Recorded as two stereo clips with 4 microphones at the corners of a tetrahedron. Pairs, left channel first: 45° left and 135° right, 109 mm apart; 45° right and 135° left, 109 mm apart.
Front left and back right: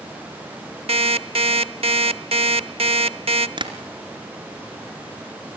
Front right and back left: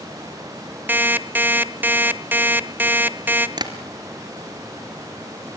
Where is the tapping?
175° right, 2.5 m.